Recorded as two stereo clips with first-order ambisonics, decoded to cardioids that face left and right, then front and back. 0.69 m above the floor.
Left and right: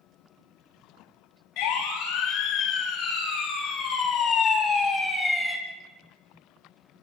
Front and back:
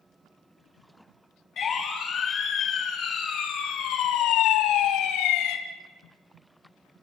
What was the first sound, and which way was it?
A siren, 65° left.